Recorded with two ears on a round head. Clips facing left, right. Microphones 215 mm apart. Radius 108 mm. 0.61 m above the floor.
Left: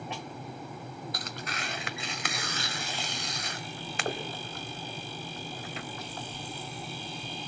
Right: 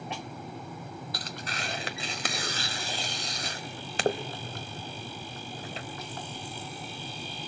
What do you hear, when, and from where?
1.1 s tearing paper: 30° right (ahead or behind), 1.3 m